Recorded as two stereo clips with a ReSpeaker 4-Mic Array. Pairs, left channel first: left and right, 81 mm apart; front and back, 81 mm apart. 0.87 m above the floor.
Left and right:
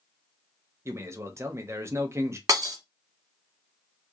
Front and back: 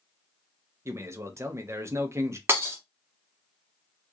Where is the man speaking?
135° right, 0.8 m.